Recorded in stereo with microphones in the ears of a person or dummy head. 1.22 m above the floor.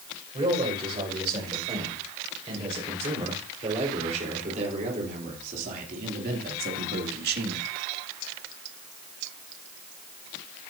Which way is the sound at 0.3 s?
30° right (ahead or behind).